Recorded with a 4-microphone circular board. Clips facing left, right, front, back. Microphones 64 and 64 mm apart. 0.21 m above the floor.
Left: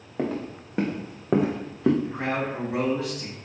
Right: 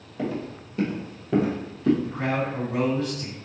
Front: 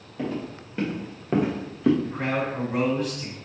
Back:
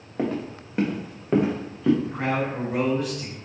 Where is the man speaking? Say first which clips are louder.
Right 1 dB, back 1 dB; 90° left, 1.6 m.